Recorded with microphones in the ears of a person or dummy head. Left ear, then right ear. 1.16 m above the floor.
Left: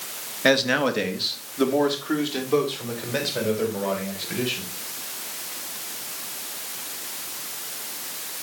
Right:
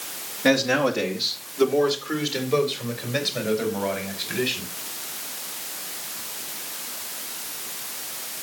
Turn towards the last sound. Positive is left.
turn(degrees=-5)  # may be behind; listen again after turning